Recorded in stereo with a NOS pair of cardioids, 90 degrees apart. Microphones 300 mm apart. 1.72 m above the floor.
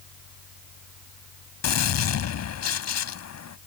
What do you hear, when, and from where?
0.0 s a fan: 65° left
1.6 s a gunshot: 60° left